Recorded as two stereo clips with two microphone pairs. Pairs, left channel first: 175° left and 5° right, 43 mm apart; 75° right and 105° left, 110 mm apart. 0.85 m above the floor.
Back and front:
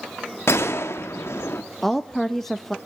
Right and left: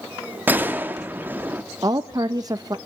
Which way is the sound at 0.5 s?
175° left.